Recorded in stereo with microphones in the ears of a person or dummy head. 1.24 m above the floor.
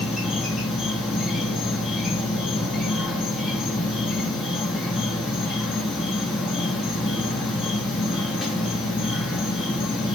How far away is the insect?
About 3 m.